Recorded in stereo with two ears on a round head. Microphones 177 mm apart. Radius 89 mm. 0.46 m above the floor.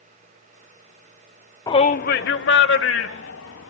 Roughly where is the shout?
Centre.